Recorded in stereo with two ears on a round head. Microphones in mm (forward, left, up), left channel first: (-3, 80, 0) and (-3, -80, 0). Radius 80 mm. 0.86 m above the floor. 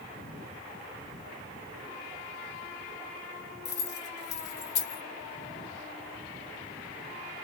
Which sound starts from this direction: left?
Keys jangling, at 3.6 s.